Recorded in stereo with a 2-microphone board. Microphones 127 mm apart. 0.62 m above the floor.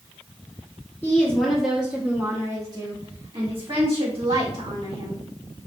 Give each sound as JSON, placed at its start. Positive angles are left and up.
{"t": 1.0, "sound": "a woman speaking", "side_deg": 15, "distance_m": 0.9}